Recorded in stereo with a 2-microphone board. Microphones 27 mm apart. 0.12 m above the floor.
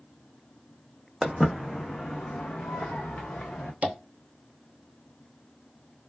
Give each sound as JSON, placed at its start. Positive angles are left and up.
{"t": 1.2, "sound": "footsteps", "side_deg": -10, "distance_m": 0.6}
{"t": 3.8, "sound": "tapping", "side_deg": -50, "distance_m": 0.7}